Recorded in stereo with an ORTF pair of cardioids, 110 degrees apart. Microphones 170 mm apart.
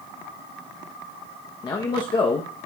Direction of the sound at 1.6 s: 25° left.